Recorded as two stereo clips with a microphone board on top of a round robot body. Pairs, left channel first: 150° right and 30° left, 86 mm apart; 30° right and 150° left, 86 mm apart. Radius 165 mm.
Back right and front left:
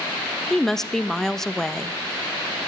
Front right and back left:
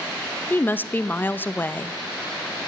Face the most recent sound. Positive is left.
turn(degrees=-70)